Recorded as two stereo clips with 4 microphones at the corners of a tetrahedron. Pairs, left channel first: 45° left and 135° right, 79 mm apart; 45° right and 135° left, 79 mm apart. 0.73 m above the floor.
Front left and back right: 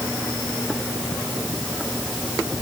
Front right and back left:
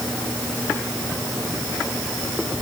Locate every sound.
Only background noise.